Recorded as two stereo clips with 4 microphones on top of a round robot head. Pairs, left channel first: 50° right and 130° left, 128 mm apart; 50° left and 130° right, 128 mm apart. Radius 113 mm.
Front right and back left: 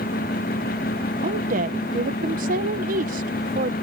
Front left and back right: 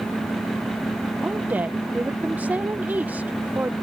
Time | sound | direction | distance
1.2 | a woman speaking | 150° left | ?